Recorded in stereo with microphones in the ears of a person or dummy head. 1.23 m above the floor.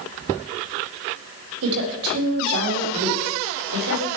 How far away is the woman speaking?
About 4.5 m.